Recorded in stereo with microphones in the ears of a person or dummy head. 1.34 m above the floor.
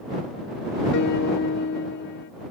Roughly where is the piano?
Left.